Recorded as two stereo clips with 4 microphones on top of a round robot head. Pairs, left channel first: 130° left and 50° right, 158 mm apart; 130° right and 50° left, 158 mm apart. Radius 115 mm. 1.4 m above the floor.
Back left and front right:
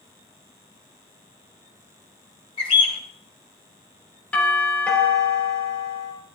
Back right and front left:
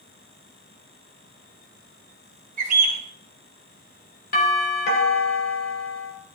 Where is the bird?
85° left, 1.6 m.